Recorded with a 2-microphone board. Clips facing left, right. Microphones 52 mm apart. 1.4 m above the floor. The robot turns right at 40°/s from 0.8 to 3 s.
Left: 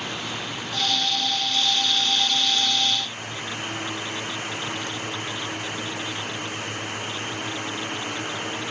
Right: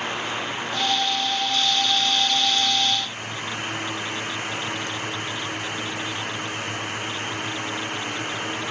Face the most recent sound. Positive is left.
No sound to turn to.